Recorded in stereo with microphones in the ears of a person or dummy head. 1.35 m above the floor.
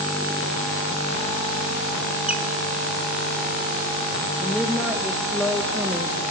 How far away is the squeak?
About 0.9 m.